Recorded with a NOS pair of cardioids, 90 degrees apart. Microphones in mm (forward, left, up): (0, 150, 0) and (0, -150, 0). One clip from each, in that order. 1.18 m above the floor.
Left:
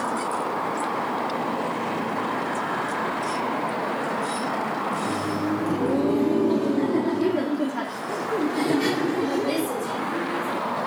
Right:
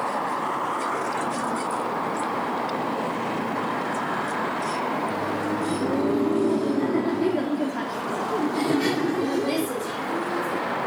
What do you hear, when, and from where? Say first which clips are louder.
4.9 s laughter: even; 45° left; by 10.6 s 10° right